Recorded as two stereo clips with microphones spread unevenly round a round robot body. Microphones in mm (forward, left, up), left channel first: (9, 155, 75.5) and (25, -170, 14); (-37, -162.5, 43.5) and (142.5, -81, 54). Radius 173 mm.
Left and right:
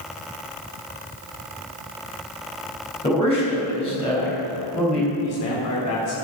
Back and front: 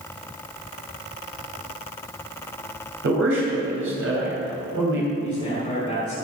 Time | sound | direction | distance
3.0 | a man speaking | 15° left | 4 m
5.2 | a man speaking | 135° left | 1.9 m